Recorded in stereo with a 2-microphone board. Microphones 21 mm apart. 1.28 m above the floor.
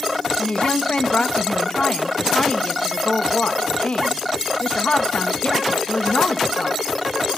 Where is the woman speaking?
65° left (ahead or behind), 1.4 m.